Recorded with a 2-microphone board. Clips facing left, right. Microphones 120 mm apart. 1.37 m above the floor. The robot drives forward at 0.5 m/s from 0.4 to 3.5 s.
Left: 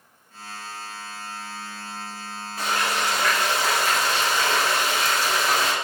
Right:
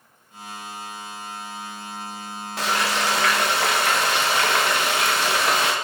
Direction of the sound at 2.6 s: 85° right.